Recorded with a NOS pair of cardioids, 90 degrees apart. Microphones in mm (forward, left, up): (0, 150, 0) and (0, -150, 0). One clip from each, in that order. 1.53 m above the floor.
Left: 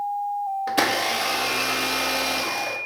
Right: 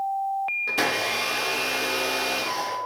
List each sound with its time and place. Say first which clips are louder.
0.7 s a blender: left 4 dB; 30° left, 0.7 m